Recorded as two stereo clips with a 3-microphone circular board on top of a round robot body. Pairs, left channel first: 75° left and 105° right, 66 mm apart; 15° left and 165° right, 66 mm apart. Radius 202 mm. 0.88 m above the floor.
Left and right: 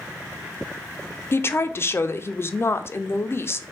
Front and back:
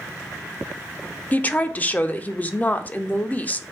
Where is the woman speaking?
65° left, 0.6 m.